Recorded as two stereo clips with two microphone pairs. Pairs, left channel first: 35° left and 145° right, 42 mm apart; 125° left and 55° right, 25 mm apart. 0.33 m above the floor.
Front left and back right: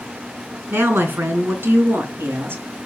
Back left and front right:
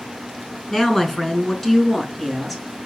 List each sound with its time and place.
0.7 s a woman speaking: 165° right, 4 m; by 2.6 s 150° right, 4.5 m